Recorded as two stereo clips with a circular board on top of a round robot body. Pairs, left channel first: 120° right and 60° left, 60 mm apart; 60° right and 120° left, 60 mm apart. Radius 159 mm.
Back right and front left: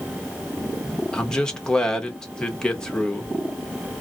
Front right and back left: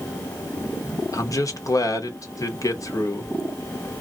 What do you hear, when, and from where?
1.1 s a man speaking: 45° right, 1.1 m